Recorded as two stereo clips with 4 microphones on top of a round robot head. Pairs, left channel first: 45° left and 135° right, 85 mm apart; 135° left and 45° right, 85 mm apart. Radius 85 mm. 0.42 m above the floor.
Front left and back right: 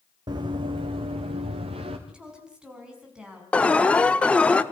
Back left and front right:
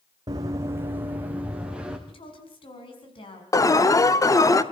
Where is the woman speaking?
145° left, 5.5 m.